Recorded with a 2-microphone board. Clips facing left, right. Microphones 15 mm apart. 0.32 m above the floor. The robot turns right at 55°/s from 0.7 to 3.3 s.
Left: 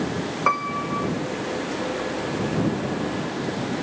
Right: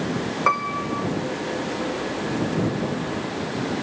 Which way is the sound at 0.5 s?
5° right (ahead or behind).